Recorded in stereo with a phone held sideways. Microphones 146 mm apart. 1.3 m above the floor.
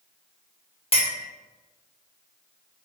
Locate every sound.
0.9 s a clink: 40° left (ahead or behind), 0.5 m